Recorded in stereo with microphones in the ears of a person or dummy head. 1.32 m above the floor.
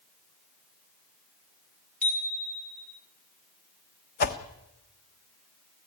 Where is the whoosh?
55° left (ahead or behind), 1.3 m.